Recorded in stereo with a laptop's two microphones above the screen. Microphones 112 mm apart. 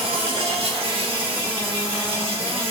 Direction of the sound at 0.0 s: 55° right (ahead or behind).